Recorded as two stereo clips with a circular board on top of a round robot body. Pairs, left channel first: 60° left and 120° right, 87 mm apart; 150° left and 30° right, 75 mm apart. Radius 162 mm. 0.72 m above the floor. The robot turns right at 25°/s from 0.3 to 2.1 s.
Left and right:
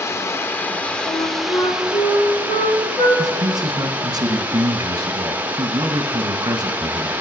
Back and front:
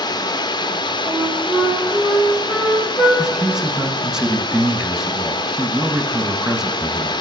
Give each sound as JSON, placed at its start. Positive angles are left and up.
{"t": 0.0, "sound": "running water", "azimuth_deg": 125, "distance_m": 0.8}
{"t": 1.1, "sound": "a flute", "azimuth_deg": 25, "distance_m": 2.5}
{"t": 3.2, "sound": "a man speaking", "azimuth_deg": -105, "distance_m": 1.3}